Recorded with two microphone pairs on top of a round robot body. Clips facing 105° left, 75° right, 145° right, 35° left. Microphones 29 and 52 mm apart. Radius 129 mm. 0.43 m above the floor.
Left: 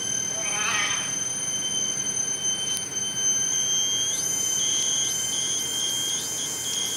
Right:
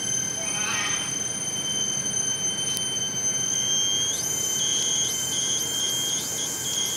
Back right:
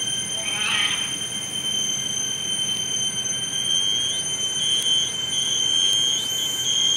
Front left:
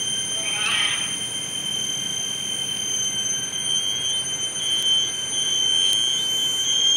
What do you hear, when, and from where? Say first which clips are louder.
0.3 s a cat meowing: left 5 dB, even; 120° left, 1.6 m